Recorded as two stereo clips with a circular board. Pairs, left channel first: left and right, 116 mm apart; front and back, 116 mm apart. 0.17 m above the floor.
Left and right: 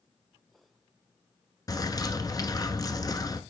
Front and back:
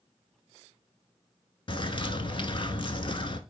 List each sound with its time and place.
1.7 s a bird: 40° left, 0.7 m